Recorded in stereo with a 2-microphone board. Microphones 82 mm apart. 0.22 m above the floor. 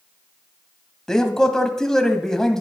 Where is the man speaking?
10° left (ahead or behind), 0.9 m.